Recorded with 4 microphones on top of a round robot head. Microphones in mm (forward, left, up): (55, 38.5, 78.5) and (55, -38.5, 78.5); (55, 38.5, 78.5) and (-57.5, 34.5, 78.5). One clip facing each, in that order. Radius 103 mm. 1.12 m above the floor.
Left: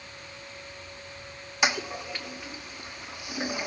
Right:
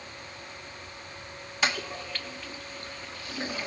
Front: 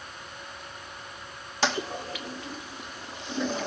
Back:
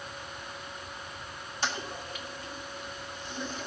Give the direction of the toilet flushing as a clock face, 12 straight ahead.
12 o'clock.